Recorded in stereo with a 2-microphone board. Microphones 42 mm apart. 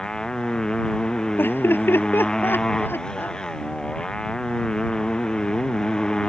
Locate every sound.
0.0 s a motorcycle: 15° left (ahead or behind)
1.4 s laughter: 60° left (ahead or behind)